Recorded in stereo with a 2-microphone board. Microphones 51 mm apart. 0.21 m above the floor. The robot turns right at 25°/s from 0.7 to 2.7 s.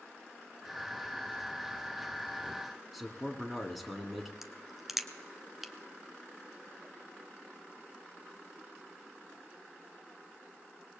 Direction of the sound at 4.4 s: 5° right (ahead or behind).